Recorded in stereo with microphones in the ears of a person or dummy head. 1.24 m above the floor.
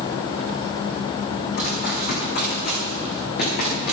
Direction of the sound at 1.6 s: 50° left (ahead or behind).